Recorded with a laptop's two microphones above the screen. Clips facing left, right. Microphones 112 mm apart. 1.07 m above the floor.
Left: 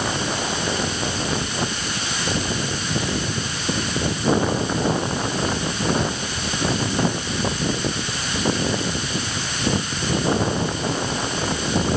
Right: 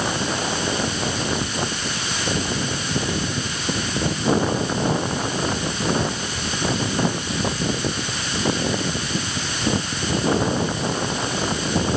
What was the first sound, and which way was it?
Only background noise.